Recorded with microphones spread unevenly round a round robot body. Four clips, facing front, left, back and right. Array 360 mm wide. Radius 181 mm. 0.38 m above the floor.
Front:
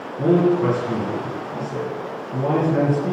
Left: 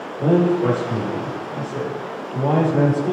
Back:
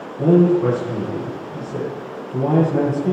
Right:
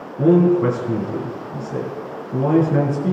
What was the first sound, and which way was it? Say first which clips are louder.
A man speaking: right 3 dB, back 2 dB; 80° right.